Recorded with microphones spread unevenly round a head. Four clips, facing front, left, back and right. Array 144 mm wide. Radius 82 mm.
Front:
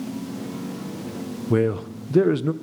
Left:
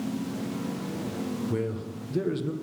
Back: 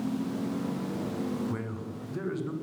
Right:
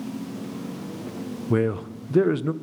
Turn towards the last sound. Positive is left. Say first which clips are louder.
# right 7 dB, front 14 dB
turn(degrees=-25)